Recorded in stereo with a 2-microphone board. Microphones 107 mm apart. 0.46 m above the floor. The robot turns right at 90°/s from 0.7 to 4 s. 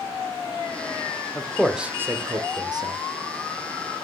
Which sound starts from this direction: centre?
A man speaking, at 1.4 s.